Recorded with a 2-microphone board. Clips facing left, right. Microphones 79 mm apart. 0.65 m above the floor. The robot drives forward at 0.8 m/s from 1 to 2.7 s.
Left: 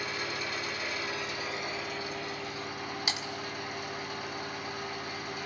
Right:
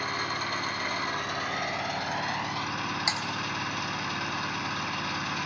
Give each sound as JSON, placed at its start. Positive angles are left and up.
{"t": 0.0, "sound": "an engine running", "side_deg": -55, "distance_m": 2.5}
{"t": 3.1, "sound": "typing on a keyboard", "side_deg": -25, "distance_m": 2.0}